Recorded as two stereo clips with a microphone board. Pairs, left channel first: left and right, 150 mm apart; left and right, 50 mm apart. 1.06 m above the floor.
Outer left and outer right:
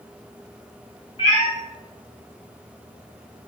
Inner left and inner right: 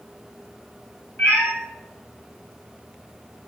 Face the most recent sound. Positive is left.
turn(degrees=35)  # may be behind; listen again after turning